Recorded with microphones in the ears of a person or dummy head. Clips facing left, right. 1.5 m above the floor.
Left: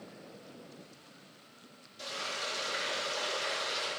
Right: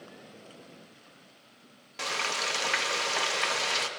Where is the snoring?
I don't hear snoring.